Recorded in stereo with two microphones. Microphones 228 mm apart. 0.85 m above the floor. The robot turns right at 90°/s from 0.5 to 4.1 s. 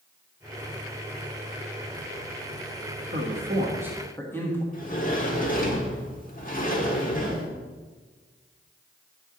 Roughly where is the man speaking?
Right.